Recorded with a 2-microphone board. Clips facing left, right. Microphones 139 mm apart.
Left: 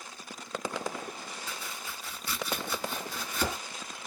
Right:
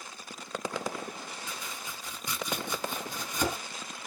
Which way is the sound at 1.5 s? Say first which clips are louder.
Even; 15° right (ahead or behind).